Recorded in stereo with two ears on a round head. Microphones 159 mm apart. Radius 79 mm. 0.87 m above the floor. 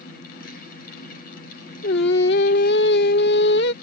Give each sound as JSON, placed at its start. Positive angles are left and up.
{"t": 1.8, "sound": "singing", "side_deg": 65}